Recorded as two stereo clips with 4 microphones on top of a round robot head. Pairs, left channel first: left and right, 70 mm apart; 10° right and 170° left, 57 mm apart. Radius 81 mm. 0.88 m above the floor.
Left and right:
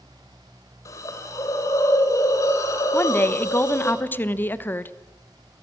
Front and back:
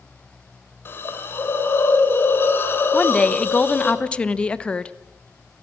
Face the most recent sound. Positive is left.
turn(degrees=50)